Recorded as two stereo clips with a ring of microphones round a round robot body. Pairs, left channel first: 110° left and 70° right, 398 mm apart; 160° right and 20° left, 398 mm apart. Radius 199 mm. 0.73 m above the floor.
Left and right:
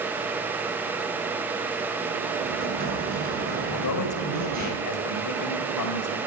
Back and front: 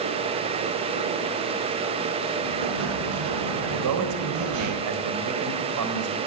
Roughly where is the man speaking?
Left.